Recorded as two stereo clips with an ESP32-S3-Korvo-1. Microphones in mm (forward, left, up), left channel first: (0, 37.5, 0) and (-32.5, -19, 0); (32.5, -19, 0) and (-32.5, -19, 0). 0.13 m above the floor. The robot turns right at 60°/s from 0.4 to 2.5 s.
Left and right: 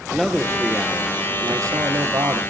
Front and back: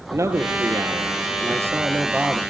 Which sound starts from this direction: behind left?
A man speaking, at 0.1 s.